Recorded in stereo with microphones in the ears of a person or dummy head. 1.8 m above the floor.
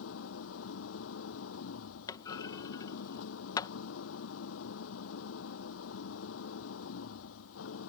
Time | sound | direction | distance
0.0 | an engine running | 80° left | ?
2.1 | a clunk | 10° left (ahead or behind) | ?